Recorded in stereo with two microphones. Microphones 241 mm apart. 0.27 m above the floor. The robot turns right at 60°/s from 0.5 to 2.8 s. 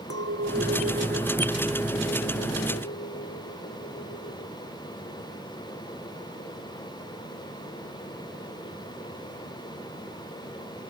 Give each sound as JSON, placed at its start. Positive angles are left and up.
{"t": 0.1, "sound": "a clink", "azimuth_deg": -75}